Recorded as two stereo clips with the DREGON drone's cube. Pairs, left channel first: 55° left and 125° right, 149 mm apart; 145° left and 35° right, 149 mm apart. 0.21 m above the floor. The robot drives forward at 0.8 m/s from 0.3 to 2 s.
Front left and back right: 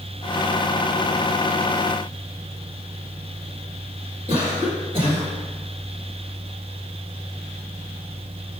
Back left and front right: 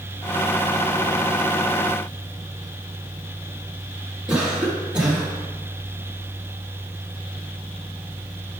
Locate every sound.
4.3 s a cough: 115° right, 1.9 m